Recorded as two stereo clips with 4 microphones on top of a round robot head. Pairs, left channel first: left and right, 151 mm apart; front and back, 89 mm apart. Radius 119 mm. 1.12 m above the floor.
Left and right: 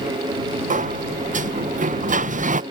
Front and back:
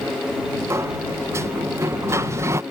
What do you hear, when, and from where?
0.7 s a sliding door: 120° right